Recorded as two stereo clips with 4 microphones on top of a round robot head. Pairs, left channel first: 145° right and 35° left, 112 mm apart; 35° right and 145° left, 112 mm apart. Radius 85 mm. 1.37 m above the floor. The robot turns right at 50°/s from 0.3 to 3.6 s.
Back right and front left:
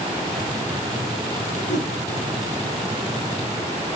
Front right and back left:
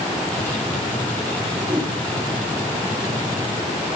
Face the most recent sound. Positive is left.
turn(degrees=-70)